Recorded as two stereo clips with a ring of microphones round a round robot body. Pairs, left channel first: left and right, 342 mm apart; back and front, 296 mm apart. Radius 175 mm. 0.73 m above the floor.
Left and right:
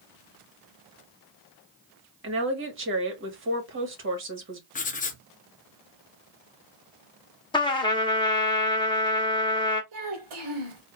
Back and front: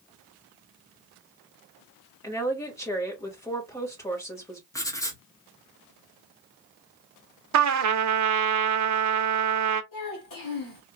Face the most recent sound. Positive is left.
turn(degrees=-145)